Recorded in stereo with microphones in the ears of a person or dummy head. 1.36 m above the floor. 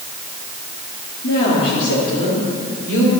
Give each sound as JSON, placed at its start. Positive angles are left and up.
{"t": 1.2, "sound": "a woman speaking", "side_deg": 55, "distance_m": 2.5}